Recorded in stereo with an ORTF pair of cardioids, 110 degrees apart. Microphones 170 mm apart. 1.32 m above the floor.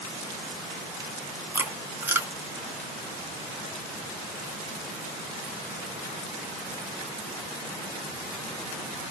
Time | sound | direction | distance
1.5 | chewing | 15° right | 0.9 m